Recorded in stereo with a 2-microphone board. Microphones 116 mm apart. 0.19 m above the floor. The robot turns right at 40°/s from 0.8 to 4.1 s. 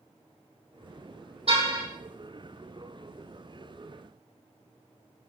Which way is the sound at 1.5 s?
60° right (ahead or behind).